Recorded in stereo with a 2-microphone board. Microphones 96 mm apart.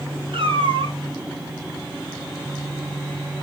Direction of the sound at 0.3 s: 75° right (ahead or behind).